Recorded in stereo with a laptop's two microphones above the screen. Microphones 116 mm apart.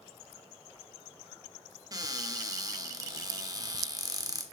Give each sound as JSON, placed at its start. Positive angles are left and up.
{"t": 1.9, "sound": "a cupboard door", "side_deg": -30, "distance_m": 1.1}